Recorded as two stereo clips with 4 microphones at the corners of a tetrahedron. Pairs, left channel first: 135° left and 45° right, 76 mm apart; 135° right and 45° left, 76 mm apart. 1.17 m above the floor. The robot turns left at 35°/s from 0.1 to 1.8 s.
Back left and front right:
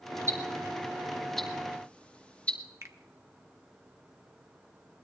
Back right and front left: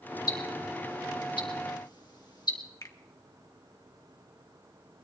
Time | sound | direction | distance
0.3 | ticking | 100° right | 1.9 m
2.8 | a finger snap | 95° right | 1.4 m